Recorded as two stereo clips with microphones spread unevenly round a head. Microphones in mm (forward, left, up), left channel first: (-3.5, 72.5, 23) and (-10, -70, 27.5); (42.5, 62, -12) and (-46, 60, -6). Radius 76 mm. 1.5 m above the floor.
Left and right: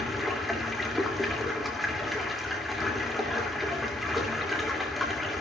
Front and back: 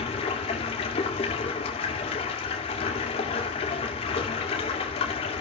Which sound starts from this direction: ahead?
Running water, at 0.0 s.